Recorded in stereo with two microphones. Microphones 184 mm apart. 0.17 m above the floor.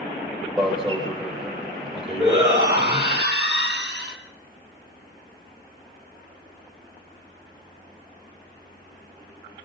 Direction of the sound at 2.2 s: 70° right (ahead or behind).